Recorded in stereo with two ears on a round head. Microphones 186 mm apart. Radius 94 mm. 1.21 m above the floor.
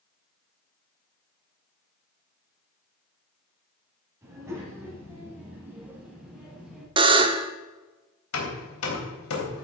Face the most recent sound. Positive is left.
turn(degrees=80)